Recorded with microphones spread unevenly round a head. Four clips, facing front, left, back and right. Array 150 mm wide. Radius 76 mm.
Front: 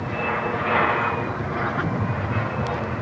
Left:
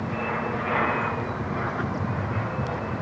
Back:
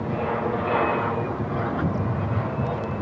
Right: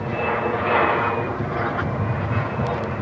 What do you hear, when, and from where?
0.0 s an aircraft: 110° right; by 3.0 s 95° right